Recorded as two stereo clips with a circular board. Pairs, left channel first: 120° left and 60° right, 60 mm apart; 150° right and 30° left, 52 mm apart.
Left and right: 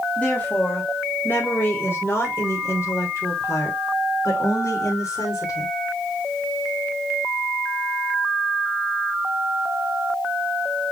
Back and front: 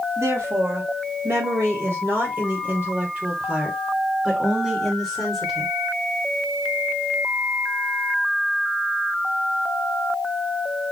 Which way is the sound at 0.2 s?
55° left.